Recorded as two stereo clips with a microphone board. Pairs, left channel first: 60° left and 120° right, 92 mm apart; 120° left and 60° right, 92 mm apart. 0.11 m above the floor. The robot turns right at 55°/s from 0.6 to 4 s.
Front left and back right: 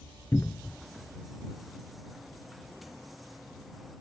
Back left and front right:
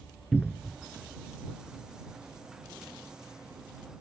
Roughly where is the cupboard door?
Ahead left.